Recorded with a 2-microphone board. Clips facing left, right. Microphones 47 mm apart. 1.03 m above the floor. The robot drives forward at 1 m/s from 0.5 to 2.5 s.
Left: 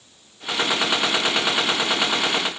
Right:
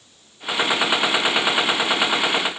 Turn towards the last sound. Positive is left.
No sound to turn to.